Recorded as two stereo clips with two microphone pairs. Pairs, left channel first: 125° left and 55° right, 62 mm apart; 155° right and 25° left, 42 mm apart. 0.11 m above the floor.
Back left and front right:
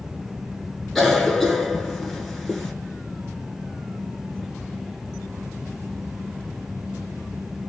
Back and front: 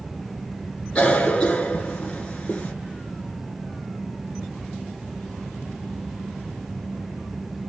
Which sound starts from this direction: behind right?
A cough, at 0.9 s.